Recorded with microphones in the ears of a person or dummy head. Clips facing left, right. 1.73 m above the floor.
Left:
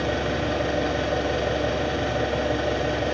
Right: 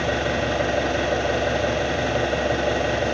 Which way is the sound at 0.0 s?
40° right (ahead or behind).